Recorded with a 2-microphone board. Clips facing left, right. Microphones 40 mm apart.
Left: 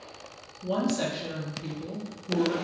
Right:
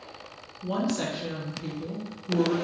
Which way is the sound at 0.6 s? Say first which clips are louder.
Left 1 dB; 5° right (ahead or behind).